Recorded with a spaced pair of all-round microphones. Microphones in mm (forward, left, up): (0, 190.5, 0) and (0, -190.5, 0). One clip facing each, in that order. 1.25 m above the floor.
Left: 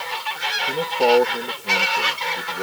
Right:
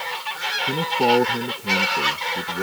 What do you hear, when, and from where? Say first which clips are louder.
0.7 s a man speaking: left 2 dB; 40° right (ahead or behind)